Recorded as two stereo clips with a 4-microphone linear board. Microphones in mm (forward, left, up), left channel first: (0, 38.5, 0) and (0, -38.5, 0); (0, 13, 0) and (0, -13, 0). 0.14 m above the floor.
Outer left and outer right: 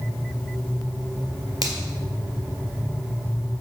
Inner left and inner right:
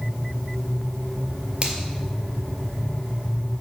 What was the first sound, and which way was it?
A finger snap, 55° right (ahead or behind).